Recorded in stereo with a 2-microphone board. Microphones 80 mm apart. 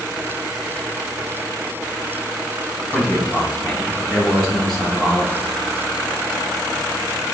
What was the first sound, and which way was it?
A man speaking, 10° left (ahead or behind).